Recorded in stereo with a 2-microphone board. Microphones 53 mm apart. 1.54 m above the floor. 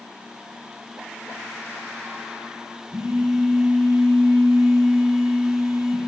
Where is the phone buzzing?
65° right (ahead or behind), 3.5 m.